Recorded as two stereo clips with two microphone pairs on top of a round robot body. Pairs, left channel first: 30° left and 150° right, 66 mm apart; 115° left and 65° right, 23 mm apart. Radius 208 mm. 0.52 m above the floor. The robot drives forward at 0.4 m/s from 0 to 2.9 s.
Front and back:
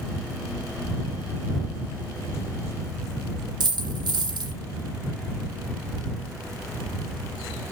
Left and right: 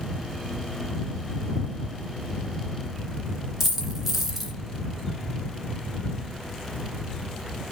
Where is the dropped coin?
145° right, 2 m.